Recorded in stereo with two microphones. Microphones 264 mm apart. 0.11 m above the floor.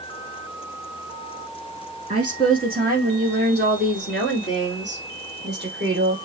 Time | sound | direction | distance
2.1 | a woman speaking | 30° right (ahead or behind) | 2 m